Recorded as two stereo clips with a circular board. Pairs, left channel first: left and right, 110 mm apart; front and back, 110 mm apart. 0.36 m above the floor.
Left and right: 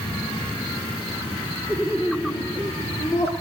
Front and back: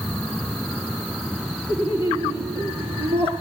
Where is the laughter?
160° right, 5.5 m; by 3.3 s 150° right, 6 m.